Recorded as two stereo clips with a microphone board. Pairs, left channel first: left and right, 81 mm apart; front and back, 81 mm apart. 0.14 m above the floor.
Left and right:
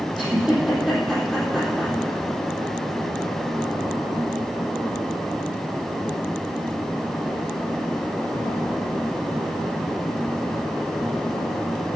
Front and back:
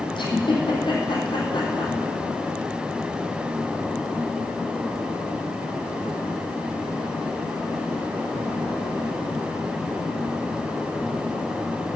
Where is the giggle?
5° right, 3.5 m.